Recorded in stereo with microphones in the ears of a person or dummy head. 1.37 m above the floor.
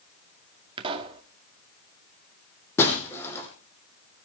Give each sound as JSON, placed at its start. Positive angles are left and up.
{"t": 0.8, "sound": "a pop", "side_deg": -25, "distance_m": 2.0}
{"t": 2.8, "sound": "breaking glass", "side_deg": 10, "distance_m": 6.0}